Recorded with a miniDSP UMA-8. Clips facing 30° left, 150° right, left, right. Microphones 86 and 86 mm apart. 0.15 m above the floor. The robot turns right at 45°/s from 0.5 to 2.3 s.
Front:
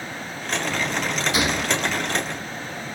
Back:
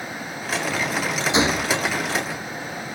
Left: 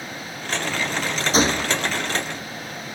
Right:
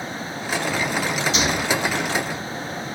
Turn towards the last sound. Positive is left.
turn(degrees=-175)